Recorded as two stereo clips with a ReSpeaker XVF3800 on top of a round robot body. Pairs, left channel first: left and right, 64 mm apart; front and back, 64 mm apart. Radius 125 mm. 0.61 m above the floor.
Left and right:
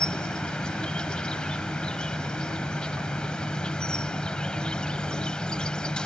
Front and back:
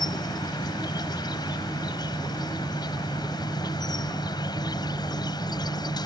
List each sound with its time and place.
0.0 s an insect: 15° left